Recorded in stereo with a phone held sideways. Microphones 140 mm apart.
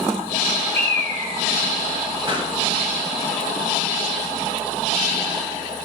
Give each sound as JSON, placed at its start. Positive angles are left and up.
{"t": 0.7, "sound": "a bird", "side_deg": -65, "distance_m": 3.0}
{"t": 2.3, "sound": "a pop", "side_deg": -40, "distance_m": 1.4}